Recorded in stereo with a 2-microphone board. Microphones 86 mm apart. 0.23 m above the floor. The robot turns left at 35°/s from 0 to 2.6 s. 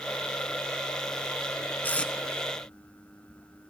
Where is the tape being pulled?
20° left (ahead or behind), 0.7 m; by 2.1 s 10° left (ahead or behind), 0.7 m.